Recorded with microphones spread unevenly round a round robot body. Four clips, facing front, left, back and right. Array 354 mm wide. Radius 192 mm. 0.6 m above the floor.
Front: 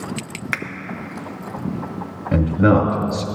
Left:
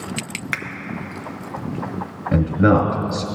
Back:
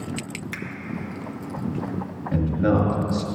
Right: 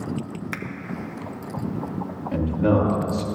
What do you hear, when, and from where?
0.5 s a finger snap: 25° left, 0.8 m
2.3 s a man speaking: 45° left, 1.7 m